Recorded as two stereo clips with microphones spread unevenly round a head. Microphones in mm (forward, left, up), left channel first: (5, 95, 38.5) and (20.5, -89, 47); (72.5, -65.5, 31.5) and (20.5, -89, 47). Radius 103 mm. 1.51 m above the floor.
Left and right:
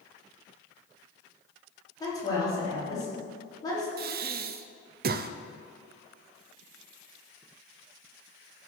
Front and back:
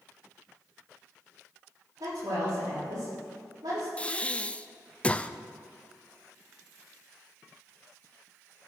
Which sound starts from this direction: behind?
A woman speaking, at 2.0 s.